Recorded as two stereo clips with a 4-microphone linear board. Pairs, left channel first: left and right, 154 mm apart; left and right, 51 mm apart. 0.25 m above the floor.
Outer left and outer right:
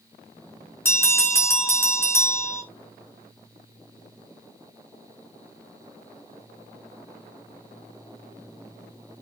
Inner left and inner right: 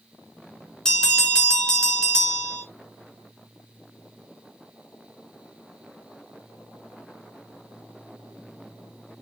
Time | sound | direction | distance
0.8 | a bell | 15° left (ahead or behind) | 4 m